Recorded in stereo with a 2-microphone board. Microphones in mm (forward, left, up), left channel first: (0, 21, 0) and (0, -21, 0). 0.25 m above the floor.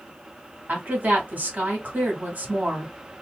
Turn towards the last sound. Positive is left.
turn(degrees=-40)  # may be behind; listen again after turning